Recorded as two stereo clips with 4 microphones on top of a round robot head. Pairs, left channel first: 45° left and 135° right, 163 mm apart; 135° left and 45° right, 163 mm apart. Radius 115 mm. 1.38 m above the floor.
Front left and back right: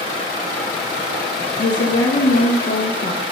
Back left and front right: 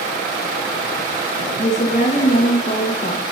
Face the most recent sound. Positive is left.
turn(degrees=85)